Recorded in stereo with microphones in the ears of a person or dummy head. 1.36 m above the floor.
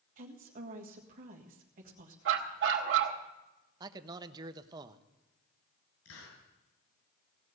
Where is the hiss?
80° left, 6 m.